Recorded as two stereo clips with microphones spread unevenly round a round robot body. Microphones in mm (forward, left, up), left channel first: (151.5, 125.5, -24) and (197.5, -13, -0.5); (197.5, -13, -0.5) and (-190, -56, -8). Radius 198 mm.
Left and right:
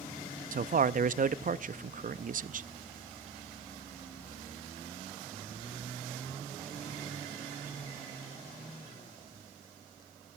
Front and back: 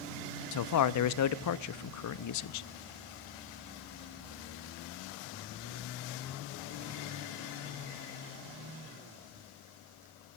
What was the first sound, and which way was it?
A man speaking, 40° right.